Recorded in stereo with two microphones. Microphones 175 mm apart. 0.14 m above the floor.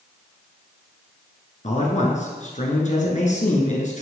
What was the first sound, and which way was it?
A man speaking, 45° left (ahead or behind).